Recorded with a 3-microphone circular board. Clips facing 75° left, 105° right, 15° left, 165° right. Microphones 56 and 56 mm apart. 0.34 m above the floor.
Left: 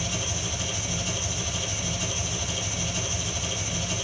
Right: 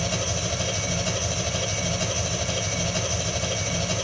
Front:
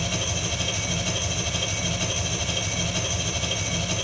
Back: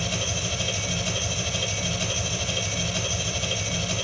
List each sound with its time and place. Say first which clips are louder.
0.0 s an engine running: right 4 dB, even; 65° right, 2.5 m